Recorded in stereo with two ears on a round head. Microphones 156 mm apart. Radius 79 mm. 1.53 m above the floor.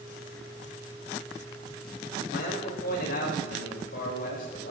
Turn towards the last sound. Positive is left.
turn(degrees=55)  # may be behind; listen again after turning